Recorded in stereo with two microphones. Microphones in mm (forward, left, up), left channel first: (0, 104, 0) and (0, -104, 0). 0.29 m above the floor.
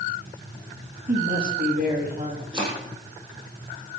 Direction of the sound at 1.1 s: 50° right (ahead or behind).